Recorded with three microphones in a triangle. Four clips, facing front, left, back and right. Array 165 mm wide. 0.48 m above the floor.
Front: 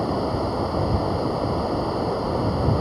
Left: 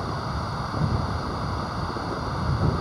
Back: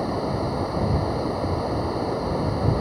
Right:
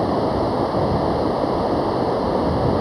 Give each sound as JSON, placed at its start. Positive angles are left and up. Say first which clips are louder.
{"t": 0.0, "sound": "running water", "louder": "right 12 dB, front 2 dB", "azimuth_deg": -85}